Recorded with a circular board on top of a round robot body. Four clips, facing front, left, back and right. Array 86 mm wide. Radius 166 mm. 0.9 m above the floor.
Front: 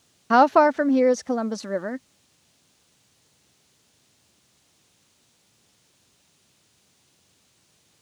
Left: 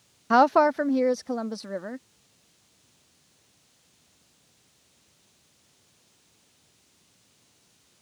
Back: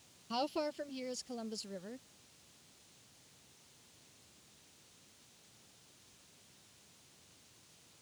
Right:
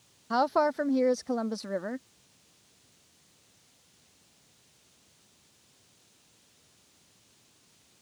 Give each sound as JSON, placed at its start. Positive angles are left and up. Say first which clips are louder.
{"t": 0.3, "sound": "a woman speaking", "louder": "left 7 dB, front 21 dB", "azimuth_deg": 30}